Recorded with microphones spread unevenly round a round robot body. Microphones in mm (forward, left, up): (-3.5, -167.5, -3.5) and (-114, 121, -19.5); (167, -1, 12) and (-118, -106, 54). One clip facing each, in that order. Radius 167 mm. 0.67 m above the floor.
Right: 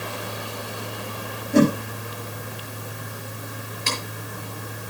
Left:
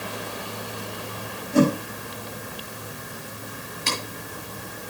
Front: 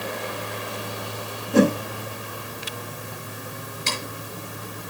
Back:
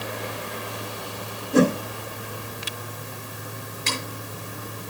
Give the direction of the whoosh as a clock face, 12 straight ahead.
3 o'clock.